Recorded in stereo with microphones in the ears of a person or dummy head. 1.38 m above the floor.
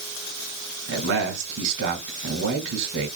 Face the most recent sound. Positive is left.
turn(degrees=-70)  # may be behind; listen again after turning